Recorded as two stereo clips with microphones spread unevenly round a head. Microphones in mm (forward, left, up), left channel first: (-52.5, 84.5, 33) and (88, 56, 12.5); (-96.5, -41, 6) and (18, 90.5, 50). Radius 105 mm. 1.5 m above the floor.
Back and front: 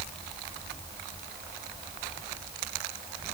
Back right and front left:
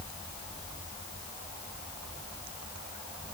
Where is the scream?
I don't hear a scream.